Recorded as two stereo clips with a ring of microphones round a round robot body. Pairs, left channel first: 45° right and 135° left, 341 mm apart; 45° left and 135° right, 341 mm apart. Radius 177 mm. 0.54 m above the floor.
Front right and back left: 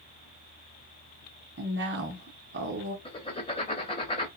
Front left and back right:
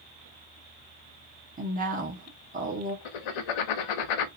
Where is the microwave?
No microwave in this recording.